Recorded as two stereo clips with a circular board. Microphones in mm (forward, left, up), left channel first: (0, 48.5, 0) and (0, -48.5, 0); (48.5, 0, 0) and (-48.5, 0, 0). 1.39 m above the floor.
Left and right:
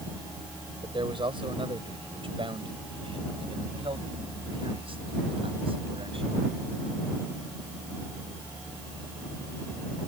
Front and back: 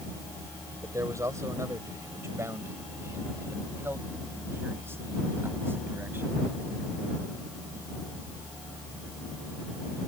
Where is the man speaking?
125° right; by 6.4 s 110° right.